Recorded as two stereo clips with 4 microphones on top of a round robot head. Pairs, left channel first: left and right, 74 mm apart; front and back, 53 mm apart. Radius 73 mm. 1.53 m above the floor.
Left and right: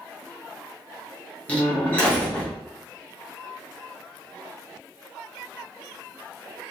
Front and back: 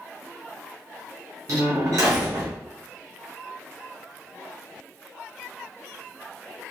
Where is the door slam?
160° left, 1.1 m.